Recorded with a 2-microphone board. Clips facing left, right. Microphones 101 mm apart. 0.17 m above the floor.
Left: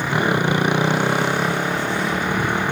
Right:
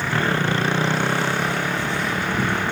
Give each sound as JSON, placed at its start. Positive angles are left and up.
{"t": 0.0, "sound": "a motorcycle", "side_deg": 15}